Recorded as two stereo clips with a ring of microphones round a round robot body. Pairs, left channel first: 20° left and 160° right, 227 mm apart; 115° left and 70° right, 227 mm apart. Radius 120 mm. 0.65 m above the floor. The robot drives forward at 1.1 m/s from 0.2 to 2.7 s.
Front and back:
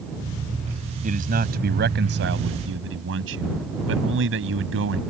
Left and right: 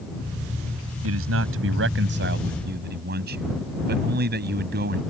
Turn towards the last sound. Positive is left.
turn(degrees=-120)